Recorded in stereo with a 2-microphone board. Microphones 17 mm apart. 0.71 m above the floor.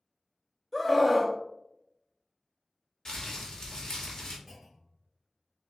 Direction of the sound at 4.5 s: 20° right (ahead or behind).